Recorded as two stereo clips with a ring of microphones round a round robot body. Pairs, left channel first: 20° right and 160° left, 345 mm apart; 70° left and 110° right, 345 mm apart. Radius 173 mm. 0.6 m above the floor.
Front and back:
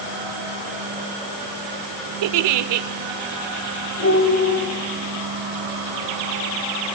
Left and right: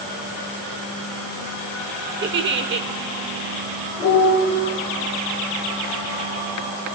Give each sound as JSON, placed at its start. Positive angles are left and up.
{"t": 2.2, "sound": "a giggle", "azimuth_deg": -175, "distance_m": 0.7}
{"t": 4.0, "sound": "a piano", "azimuth_deg": -25, "distance_m": 8.5}